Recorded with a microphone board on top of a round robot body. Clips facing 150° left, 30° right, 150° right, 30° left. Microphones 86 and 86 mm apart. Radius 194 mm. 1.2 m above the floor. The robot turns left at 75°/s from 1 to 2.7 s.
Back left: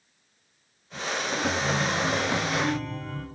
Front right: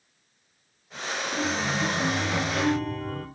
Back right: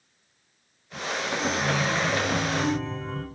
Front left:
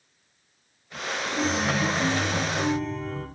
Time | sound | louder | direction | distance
1.4 | a chime | even, front left 2 dB | 30° left | 1.1 m